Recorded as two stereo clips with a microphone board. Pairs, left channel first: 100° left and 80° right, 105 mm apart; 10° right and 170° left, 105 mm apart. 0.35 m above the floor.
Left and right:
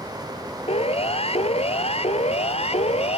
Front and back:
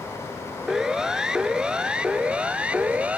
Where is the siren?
85° left; by 3.2 s 90° left.